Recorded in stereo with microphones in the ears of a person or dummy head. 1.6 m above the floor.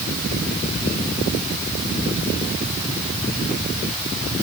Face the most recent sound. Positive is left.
No sound to turn to.